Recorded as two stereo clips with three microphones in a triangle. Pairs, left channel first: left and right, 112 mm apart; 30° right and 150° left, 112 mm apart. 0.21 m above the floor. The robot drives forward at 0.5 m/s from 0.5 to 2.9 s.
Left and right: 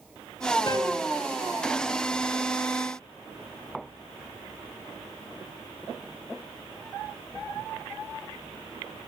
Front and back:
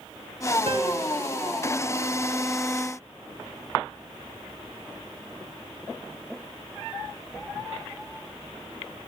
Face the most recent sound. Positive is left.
turn(degrees=160)